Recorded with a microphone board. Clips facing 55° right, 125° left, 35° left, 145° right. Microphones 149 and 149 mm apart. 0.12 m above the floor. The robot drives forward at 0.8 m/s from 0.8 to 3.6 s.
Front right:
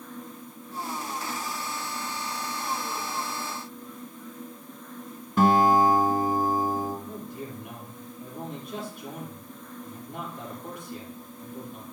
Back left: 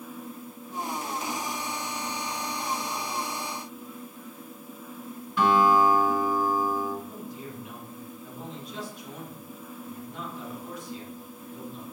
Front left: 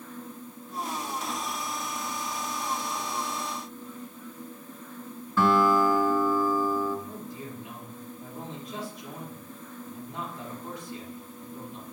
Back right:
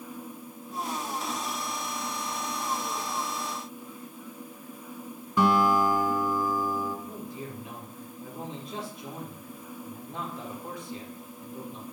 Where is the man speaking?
80° right, 4.5 m.